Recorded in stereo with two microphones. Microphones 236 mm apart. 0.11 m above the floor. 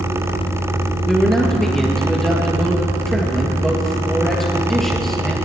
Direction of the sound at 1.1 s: Centre (ahead or behind).